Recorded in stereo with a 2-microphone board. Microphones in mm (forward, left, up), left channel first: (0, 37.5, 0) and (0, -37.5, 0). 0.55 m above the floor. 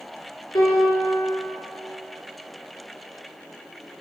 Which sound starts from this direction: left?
A piano, at 0.6 s.